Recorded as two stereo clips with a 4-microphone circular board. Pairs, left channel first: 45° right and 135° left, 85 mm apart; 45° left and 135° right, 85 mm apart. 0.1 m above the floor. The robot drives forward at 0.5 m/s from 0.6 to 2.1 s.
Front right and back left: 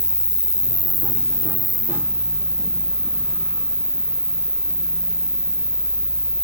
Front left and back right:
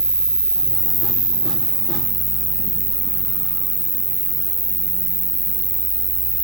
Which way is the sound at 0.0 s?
90° right.